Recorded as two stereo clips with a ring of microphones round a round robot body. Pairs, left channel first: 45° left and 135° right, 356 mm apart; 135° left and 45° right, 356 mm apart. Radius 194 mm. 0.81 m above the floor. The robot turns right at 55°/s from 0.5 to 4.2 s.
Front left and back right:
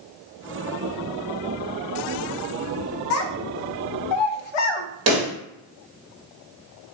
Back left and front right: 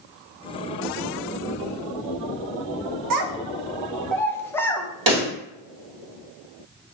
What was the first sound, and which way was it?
A child speaking, 10° right.